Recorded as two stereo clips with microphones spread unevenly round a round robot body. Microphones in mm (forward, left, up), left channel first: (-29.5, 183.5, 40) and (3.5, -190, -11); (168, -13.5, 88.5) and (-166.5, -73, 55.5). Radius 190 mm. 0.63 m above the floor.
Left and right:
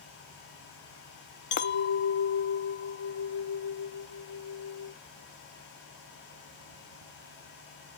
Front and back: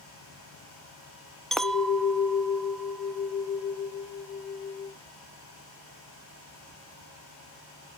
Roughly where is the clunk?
I don't hear a clunk.